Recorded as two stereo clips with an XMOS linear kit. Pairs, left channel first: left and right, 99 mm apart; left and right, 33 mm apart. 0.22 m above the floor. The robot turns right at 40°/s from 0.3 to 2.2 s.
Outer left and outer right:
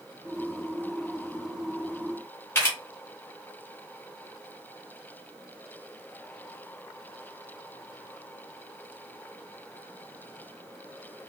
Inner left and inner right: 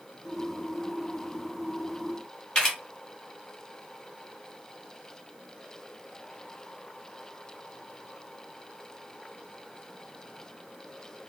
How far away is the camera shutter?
About 1.6 m.